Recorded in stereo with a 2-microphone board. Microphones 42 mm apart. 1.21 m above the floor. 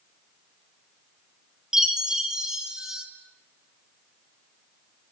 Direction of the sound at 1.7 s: 10° right (ahead or behind).